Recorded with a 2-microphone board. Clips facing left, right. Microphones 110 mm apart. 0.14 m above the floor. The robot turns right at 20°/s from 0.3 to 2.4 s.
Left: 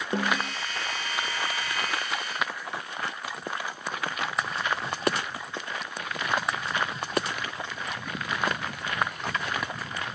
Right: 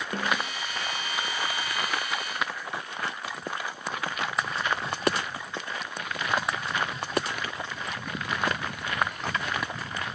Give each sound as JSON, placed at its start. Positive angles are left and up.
{"t": 0.1, "sound": "a snare drum", "side_deg": 25, "distance_m": 1.0}